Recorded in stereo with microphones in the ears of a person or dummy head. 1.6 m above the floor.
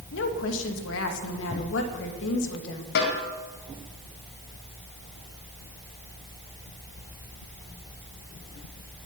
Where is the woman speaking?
75° left (ahead or behind), 2 m.